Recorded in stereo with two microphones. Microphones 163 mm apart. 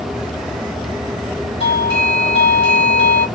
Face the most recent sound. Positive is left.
turn(degrees=35)  # may be behind; listen again after turning